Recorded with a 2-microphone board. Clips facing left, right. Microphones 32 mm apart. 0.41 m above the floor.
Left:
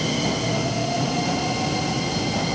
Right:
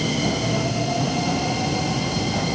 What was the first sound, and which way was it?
Only background noise.